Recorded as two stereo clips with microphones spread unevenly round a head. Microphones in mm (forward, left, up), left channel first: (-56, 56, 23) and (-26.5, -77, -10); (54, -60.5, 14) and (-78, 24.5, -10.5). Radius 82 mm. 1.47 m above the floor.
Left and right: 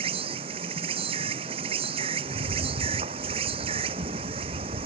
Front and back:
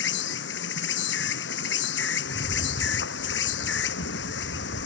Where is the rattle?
90° right.